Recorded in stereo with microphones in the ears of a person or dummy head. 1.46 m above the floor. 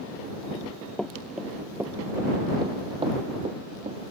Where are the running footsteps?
15° left (ahead or behind); by 4.0 s 40° right (ahead or behind).